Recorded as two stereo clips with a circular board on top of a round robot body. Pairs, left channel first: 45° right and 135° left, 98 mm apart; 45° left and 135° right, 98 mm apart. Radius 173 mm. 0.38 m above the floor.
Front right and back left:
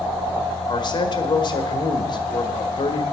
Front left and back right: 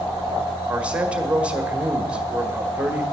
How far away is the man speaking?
About 1.6 m.